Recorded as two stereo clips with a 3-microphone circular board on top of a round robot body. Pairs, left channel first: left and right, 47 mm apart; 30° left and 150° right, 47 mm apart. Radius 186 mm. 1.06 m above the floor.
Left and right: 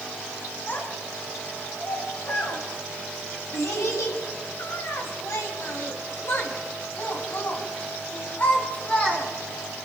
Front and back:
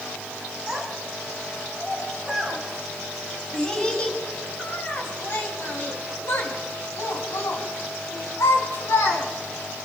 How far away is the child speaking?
About 7.5 m.